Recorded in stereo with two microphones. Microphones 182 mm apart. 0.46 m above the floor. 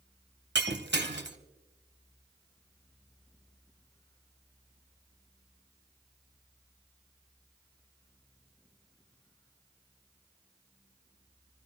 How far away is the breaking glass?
About 1.4 m.